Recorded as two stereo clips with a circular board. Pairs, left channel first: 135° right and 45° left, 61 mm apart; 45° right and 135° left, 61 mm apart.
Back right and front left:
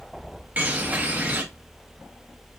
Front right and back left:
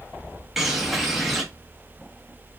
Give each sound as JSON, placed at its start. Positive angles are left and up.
{"t": 0.6, "sound": "a bird", "azimuth_deg": 50, "distance_m": 1.1}